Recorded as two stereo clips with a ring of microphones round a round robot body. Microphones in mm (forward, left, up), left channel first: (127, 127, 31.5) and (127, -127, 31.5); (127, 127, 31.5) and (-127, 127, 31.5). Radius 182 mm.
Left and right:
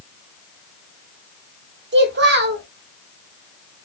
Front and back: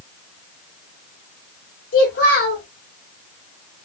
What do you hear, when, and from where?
1.9 s a child speaking: 55° right, 1.2 m